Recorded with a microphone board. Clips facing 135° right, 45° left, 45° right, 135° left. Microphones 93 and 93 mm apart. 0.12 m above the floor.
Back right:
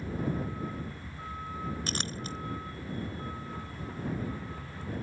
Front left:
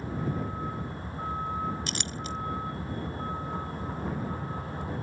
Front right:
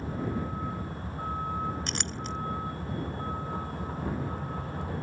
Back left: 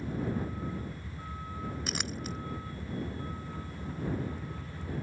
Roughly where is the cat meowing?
I don't hear a cat meowing.